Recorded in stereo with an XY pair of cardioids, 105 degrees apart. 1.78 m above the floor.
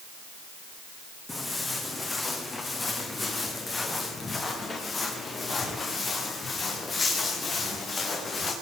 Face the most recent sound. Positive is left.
turn(degrees=45)